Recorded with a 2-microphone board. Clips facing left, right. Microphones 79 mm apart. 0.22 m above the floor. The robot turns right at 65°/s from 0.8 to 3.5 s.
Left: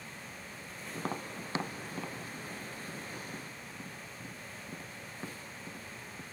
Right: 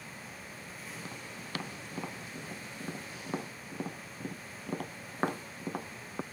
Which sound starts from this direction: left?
Tapping, at 0.9 s.